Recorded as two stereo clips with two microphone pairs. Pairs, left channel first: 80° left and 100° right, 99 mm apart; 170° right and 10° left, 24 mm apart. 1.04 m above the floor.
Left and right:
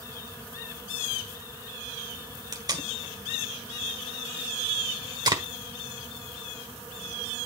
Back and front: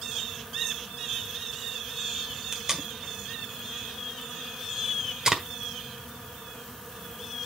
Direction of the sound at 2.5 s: 50° right.